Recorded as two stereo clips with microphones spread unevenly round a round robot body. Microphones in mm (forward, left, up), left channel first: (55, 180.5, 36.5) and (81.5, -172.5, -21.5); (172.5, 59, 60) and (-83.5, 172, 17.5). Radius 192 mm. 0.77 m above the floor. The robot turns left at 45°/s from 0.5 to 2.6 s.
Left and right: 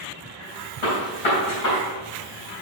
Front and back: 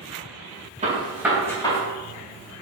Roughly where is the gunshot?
Left.